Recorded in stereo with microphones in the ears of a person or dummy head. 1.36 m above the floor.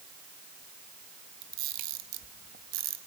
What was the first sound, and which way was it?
A camera shutter, 50° right (ahead or behind).